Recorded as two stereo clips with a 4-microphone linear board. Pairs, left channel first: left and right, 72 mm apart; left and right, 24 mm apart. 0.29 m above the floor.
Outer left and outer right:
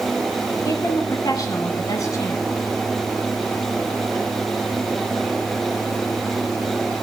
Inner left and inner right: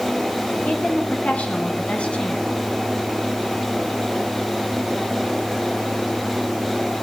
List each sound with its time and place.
0.7 s a woman speaking: 55° left (ahead or behind), 3 m; by 2.5 s 40° left (ahead or behind), 2.5 m